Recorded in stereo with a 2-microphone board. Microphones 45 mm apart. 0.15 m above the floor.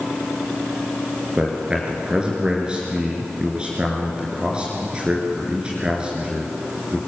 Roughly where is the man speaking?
Right.